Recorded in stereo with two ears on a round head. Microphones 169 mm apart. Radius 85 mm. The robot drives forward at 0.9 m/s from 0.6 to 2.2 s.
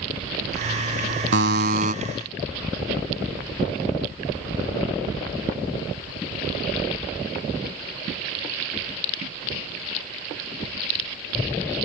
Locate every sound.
1.3 s a buzzer: 65° right (ahead or behind); by 1.9 s 45° right (ahead or behind)